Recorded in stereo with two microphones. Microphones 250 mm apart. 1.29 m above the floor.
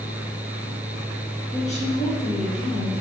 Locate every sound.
1.5 s a woman speaking: 25° left (ahead or behind), 2.0 m